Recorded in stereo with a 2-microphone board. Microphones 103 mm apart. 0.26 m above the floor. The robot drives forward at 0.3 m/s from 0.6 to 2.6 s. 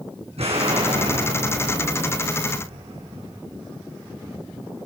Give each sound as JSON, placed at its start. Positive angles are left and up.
{"t": 0.4, "sound": "an explosion", "side_deg": -75, "distance_m": 8.5}